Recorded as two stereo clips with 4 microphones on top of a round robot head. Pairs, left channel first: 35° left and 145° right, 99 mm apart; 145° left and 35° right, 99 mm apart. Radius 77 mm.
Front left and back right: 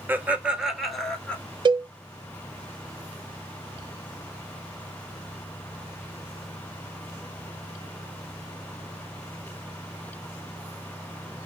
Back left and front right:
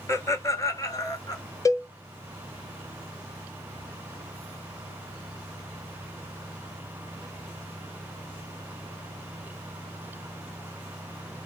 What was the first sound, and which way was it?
Laughter, 170° left.